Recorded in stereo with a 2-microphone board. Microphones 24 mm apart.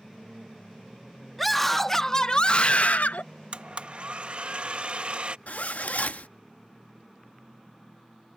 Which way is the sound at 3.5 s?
45° right (ahead or behind).